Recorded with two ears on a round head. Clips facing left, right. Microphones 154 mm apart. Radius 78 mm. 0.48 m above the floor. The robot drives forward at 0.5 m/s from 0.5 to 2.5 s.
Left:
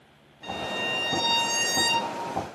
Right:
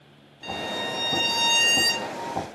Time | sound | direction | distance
0.4 | a violin | 45° right (ahead or behind) | 1.1 m